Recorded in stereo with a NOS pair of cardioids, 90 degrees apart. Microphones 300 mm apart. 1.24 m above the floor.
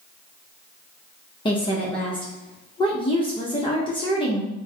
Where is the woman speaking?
15° left, 0.8 m.